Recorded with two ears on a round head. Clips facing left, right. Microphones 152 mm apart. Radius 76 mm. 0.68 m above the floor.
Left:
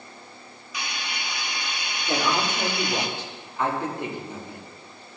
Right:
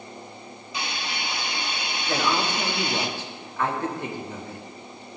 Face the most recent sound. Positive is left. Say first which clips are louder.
# even
turn(degrees=20)  # may be behind; listen again after turning